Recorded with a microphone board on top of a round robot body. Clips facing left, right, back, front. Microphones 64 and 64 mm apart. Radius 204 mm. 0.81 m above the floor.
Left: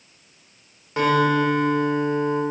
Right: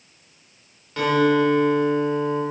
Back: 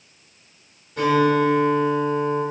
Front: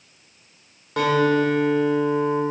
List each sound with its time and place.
1.0 s a guitar: 20° left, 1.2 m